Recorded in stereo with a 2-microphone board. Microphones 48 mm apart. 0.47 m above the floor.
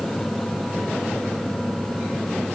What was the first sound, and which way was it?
Only background noise.